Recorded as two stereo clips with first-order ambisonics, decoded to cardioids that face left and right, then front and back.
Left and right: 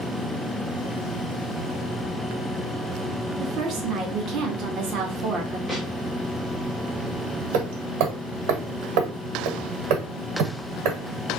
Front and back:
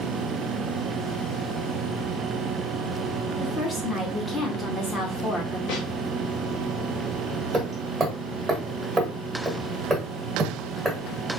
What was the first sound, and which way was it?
A woman speaking, 65° right.